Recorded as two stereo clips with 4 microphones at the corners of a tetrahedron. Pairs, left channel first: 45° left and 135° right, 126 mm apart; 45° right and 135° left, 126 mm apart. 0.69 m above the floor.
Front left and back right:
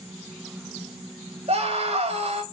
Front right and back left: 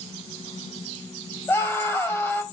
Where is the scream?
120° right, 1.8 m.